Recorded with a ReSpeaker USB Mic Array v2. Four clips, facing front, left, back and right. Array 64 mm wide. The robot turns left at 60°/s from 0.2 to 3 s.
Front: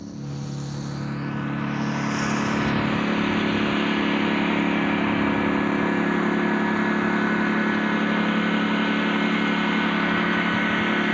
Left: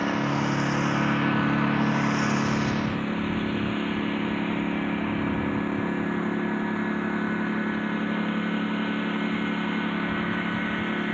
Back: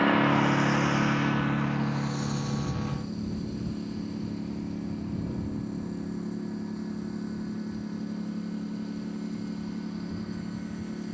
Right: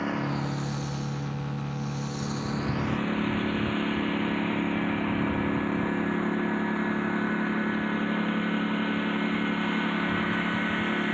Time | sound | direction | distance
0.0 | a lawn mower | 170° left | ?